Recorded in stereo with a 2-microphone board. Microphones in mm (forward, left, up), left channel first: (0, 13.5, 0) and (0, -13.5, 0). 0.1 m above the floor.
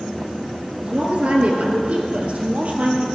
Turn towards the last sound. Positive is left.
turn(degrees=-45)  # may be behind; listen again after turning